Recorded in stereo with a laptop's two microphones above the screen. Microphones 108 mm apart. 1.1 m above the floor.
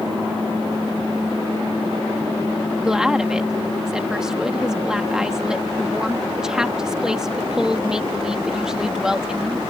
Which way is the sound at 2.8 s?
5° right (ahead or behind).